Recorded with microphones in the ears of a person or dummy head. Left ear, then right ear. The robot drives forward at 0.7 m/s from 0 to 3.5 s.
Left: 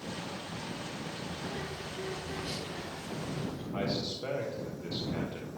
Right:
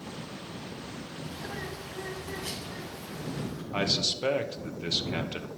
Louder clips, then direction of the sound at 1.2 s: Right 4 dB; 75° right (ahead or behind).